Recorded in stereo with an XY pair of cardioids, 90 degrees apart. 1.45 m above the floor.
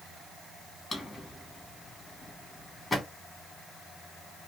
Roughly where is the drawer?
Ahead left.